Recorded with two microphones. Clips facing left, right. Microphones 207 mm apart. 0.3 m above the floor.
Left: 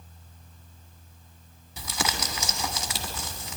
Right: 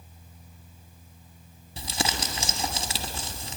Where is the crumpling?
30° right (ahead or behind), 1.5 m.